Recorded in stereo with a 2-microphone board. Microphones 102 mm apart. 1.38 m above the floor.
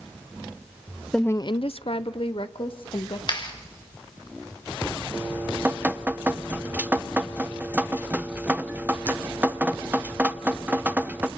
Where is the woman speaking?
5° left (ahead or behind), 0.6 m; by 3.2 s 55° left (ahead or behind), 2.5 m.